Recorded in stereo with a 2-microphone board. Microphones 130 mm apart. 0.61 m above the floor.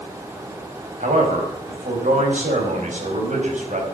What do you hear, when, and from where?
1.0 s a man speaking: 70° right (ahead or behind), 4.5 m